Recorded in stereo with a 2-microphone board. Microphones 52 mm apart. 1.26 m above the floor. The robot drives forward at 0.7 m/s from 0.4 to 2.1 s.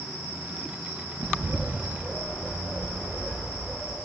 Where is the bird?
40° right (ahead or behind), 0.6 m; by 4.0 s 20° right (ahead or behind), 1.1 m.